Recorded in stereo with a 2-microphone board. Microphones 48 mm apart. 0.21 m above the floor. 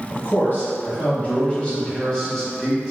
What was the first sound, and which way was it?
A man speaking, 45° left (ahead or behind).